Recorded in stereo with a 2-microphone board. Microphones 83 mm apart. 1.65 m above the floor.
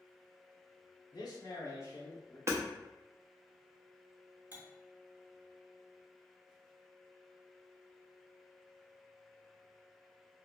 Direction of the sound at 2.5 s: 35° right (ahead or behind).